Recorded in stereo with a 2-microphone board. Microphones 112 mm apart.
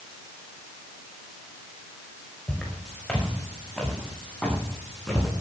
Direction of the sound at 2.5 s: 5° left (ahead or behind).